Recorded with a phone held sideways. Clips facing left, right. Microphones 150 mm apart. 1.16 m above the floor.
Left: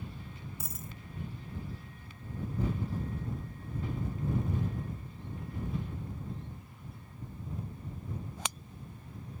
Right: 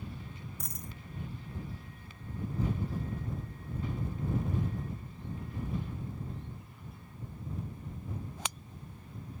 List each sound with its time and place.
0.6 s a dropped coin: 5° left (ahead or behind)